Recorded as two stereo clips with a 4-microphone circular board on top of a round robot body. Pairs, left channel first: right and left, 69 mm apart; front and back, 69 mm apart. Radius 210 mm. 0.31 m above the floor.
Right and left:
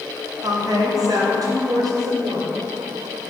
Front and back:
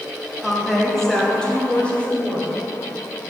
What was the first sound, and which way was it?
A woman speaking, 95° left.